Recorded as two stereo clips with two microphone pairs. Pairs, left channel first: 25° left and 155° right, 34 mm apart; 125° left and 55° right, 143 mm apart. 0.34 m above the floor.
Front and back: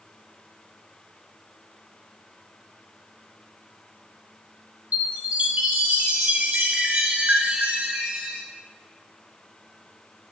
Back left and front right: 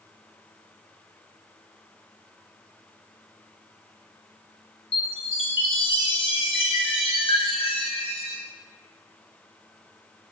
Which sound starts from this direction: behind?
A chime, at 4.9 s.